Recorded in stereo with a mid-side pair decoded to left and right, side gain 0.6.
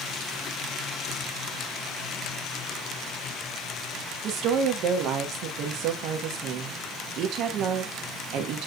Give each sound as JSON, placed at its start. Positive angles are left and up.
{"t": 4.2, "sound": "a woman speaking", "azimuth_deg": -60, "distance_m": 1.0}